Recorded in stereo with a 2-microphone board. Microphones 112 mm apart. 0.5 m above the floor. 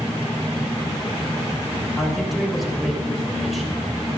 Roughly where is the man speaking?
Centre.